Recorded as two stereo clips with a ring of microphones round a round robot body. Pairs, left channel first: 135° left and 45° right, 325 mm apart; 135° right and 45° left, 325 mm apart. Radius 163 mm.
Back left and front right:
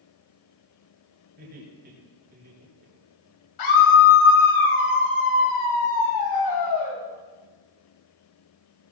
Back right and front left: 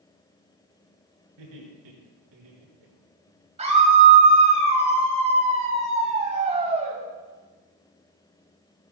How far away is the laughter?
About 9.5 m.